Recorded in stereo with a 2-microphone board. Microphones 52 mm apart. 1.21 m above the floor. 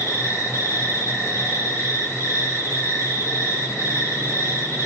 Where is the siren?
I don't hear a siren.